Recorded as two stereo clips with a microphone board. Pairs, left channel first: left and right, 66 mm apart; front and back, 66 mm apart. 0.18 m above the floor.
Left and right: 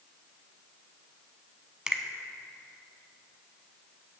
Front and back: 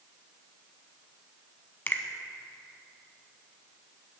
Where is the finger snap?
25° right, 0.9 m.